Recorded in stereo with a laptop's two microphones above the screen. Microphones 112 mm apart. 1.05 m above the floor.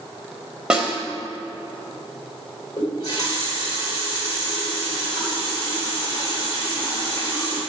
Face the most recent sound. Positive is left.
turn(degrees=40)  # may be behind; listen again after turning